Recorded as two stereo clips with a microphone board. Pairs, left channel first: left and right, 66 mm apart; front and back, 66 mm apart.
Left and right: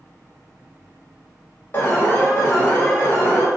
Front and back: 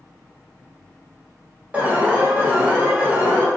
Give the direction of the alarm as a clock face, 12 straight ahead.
8 o'clock.